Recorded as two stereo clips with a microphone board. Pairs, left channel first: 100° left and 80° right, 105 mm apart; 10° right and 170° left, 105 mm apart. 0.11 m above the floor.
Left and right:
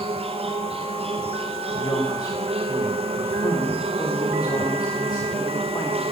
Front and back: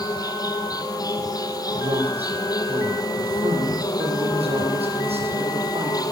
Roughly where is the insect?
Ahead right.